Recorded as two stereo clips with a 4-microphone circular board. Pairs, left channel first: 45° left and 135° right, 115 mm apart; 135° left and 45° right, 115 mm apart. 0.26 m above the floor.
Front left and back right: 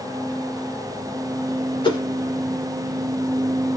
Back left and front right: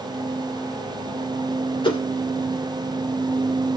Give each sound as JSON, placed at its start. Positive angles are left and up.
{"t": 1.8, "sound": "a whoosh", "azimuth_deg": 90, "distance_m": 1.3}